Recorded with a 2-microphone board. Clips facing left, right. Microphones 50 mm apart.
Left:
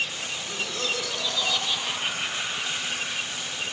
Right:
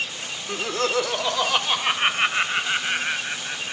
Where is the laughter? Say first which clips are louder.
Right 8 dB; 60° right (ahead or behind), 1.2 m; by 3.7 s 65° right (ahead or behind), 3.5 m.